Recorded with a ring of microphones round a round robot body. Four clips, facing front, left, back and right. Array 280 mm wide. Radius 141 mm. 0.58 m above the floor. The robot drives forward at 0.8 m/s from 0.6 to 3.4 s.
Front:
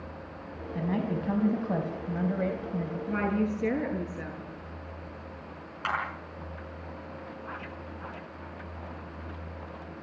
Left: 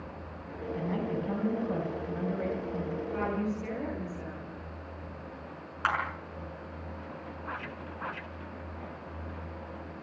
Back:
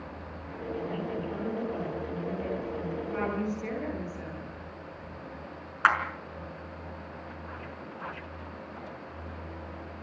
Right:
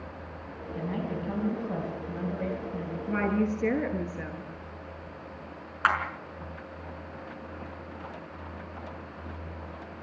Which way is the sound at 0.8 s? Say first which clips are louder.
Even, front 4 dB; straight ahead.